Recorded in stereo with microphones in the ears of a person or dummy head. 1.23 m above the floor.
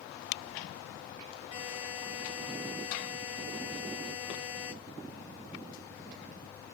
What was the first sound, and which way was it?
A buzzer, 10° right (ahead or behind).